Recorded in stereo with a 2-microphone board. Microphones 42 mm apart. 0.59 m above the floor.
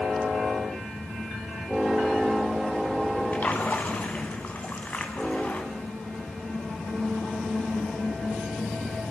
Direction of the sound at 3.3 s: 45° left (ahead or behind).